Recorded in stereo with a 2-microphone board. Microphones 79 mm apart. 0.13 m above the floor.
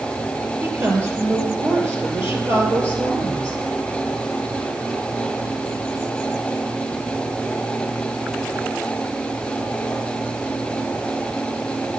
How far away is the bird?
I don't hear a bird.